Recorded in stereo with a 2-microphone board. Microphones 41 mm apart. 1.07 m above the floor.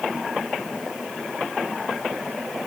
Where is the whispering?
No whispering in this recording.